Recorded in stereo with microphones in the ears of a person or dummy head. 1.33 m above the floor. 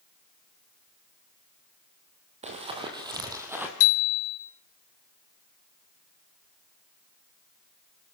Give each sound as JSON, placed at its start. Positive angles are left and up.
{"t": 2.4, "sound": "running footsteps", "side_deg": -30, "distance_m": 3.0}
{"t": 3.8, "sound": "a bicycle bell", "side_deg": 80, "distance_m": 3.0}